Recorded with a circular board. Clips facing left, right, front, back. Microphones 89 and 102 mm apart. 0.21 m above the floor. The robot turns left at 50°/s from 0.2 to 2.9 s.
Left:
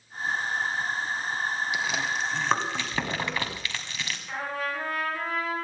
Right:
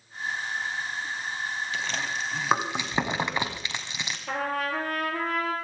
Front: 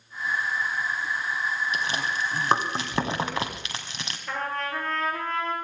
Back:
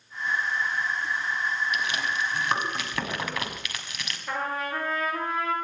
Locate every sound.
1.7 s chewing: 25° left, 1.8 m; by 4.2 s 35° right, 1.8 m
4.3 s a trumpet: 95° right, 4 m